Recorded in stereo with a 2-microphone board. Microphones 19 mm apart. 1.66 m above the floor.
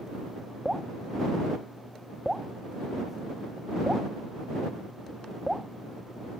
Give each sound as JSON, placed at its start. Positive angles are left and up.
{"t": 0.7, "sound": "dripping", "side_deg": -20}